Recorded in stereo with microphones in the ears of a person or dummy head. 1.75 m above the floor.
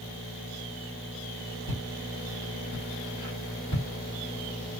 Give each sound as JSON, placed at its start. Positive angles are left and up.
{"t": 1.7, "sound": "footsteps", "side_deg": 25, "distance_m": 1.8}